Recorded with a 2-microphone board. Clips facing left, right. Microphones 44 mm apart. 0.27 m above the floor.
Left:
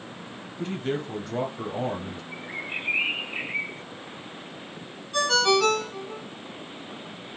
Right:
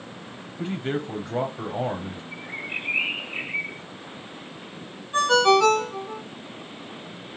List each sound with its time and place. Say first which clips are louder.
0.6 s a man speaking: right 1 dB; 15° right (ahead or behind), 1.0 m
2.3 s a bird: right 1 dB; 10° right (ahead or behind), 1.7 m
5.1 s a ringtone: right 4 dB; 30° right (ahead or behind), 1.3 m